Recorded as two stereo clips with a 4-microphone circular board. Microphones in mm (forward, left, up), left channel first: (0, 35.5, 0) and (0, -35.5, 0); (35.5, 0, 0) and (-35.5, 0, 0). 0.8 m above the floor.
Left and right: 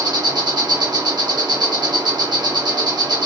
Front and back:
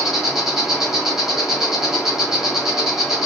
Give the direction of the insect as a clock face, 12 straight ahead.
3 o'clock.